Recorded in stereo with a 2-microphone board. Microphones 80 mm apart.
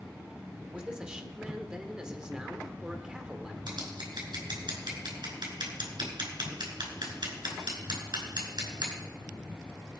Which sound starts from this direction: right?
Scissors, at 3.7 s.